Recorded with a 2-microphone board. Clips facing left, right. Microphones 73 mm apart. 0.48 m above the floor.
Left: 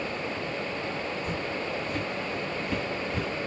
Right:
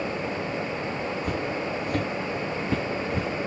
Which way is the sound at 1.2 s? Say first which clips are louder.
Right 3 dB; 55° right (ahead or behind).